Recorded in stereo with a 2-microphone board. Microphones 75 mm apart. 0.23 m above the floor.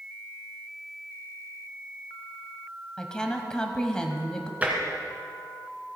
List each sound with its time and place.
3.0 s a woman speaking: 10° left (ahead or behind), 1.2 m
4.6 s tapping: 20° right (ahead or behind), 2 m